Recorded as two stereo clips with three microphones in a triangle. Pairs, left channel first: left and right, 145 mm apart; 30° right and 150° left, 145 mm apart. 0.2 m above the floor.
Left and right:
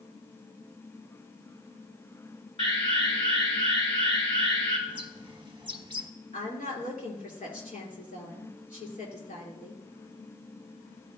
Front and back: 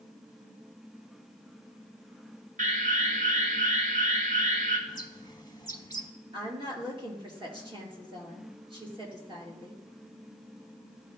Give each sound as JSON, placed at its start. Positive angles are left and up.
{"t": 2.6, "sound": "an alarm", "azimuth_deg": 140, "distance_m": 2.5}
{"t": 4.9, "sound": "a bird", "azimuth_deg": -65, "distance_m": 1.0}
{"t": 6.3, "sound": "a woman speaking", "azimuth_deg": 100, "distance_m": 3.0}